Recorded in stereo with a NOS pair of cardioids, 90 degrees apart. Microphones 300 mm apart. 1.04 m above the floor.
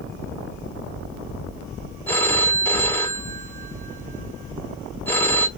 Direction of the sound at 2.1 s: 5° left.